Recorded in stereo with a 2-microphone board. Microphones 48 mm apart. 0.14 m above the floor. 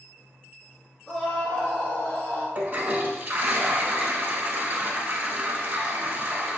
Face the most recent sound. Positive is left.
turn(degrees=-30)  # may be behind; listen again after turning